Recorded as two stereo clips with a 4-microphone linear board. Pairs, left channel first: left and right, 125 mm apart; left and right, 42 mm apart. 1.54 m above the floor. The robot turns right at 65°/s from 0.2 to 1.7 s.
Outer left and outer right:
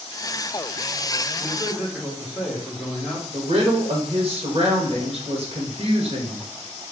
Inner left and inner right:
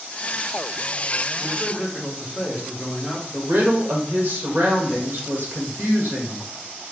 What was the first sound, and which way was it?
A man speaking, 10° left (ahead or behind).